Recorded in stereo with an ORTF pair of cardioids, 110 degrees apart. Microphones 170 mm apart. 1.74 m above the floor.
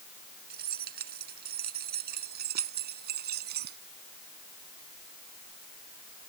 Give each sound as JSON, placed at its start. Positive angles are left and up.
{"t": 0.5, "sound": "keys jangling", "azimuth_deg": -60}